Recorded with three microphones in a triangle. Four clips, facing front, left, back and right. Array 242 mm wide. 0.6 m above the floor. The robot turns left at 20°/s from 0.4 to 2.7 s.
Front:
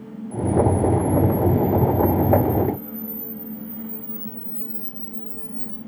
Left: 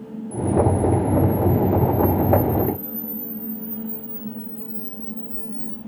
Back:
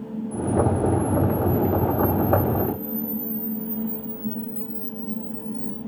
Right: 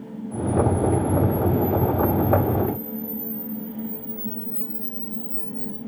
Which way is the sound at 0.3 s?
155° right.